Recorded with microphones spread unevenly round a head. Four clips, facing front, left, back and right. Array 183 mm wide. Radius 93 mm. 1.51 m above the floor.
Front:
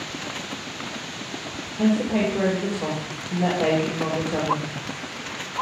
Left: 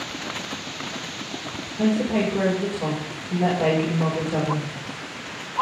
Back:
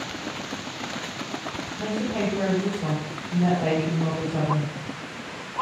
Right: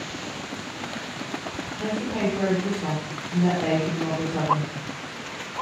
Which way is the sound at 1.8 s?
65° left.